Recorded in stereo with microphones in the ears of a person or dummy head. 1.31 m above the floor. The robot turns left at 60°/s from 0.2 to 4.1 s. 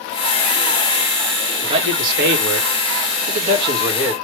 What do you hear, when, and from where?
1.6 s a man speaking: 25° right, 2 m; by 4.1 s 175° right, 2 m